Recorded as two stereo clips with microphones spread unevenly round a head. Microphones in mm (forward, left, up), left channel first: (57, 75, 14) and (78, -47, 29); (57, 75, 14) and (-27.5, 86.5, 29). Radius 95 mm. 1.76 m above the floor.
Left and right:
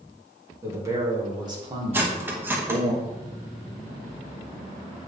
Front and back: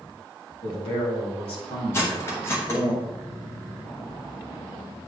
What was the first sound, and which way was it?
A man speaking, 15° right.